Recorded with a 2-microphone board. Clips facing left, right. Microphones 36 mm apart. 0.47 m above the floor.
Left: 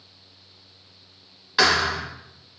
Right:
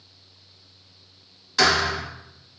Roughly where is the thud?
Left.